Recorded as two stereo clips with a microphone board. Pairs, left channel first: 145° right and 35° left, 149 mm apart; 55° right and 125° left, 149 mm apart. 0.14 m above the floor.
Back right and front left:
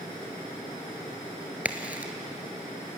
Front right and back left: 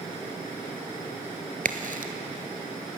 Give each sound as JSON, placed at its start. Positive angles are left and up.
{"t": 1.6, "sound": "a crack", "azimuth_deg": 115, "distance_m": 1.5}